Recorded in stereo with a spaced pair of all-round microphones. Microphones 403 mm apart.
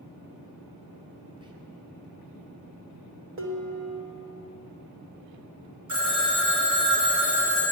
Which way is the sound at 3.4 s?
35° right (ahead or behind).